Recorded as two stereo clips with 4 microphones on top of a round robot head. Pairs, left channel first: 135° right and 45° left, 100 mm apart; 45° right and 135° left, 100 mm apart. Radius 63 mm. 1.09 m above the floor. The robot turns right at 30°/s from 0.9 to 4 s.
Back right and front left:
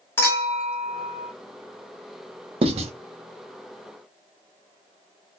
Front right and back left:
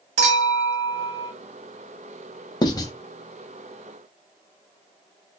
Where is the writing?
5° left, 0.6 m; by 2.9 s 15° left, 0.6 m.